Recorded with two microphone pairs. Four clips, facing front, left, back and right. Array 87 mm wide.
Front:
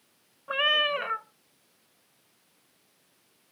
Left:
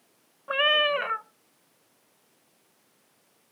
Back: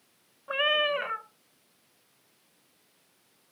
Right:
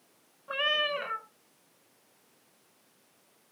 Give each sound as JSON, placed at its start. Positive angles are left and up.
{"t": 0.5, "sound": "a cat meowing", "azimuth_deg": 90, "distance_m": 0.7}